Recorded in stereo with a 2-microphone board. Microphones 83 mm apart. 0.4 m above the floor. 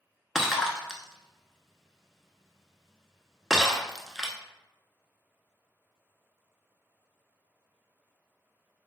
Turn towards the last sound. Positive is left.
turn(degrees=0)  # may be behind; listen again after turning